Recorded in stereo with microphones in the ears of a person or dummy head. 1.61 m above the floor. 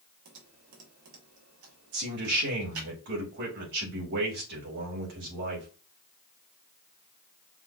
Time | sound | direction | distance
0.2 | typing on a keyboard | 80° right | 1.7 m
1.9 | a man speaking | 60° right (ahead or behind) | 2.5 m